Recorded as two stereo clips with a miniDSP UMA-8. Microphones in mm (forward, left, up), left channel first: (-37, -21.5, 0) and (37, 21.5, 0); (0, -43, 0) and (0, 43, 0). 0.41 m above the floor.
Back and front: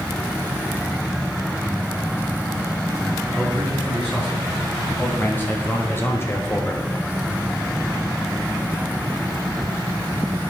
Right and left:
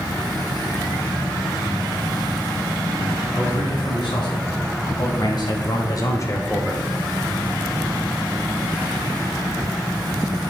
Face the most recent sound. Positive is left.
turn(degrees=170)